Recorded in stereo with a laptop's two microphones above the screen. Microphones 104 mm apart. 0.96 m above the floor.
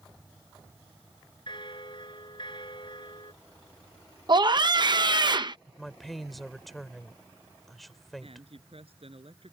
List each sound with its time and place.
1.5 s a bell: 50° left (ahead or behind)
4.3 s a scream: 45° right (ahead or behind)
5.7 s a woman speaking: centre (ahead or behind)
8.2 s a man speaking: 65° right (ahead or behind)